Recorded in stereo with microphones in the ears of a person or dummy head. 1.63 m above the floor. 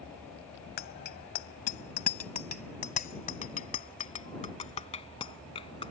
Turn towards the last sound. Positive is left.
turn(degrees=25)  # may be behind; listen again after turning